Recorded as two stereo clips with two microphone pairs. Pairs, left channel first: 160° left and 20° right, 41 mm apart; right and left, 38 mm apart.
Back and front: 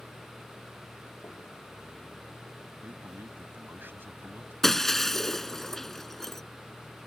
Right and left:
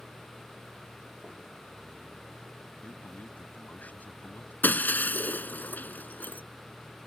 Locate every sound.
0.0 s a vehicle: 160° left
2.8 s a man speaking: 50° right
4.6 s breaking glass: 120° right